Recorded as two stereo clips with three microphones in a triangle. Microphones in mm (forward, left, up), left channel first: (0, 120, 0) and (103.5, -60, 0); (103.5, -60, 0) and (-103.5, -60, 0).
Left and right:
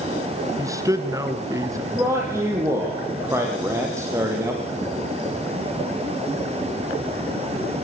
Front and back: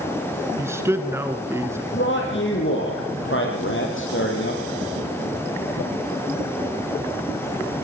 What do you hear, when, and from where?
0.6 s a man speaking: 115° right, 1.5 m
1.9 s a man speaking: 15° left, 5 m